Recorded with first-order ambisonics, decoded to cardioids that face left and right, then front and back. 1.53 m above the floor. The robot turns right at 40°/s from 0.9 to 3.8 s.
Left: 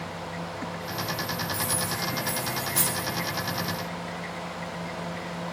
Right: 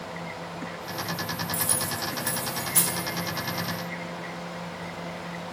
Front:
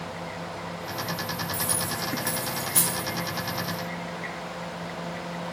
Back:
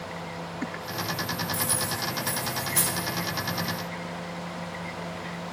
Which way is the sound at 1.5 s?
90° right.